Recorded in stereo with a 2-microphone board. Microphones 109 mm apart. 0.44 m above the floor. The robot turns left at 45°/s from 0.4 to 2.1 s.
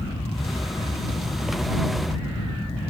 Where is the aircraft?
100° left; by 2.9 s 25° left.